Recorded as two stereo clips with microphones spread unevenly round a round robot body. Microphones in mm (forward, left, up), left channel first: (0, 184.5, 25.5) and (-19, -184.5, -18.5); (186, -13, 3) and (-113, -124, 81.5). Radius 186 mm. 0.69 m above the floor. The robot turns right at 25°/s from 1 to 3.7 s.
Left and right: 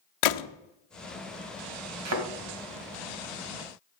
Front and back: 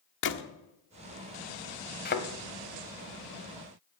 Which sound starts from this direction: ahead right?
A thud, at 2.0 s.